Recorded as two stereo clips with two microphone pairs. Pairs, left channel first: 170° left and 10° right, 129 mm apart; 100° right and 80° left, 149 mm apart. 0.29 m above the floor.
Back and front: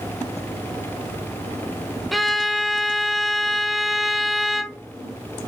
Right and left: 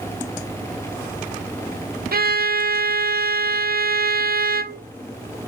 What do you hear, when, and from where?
2.1 s a violin: 80° left, 0.5 m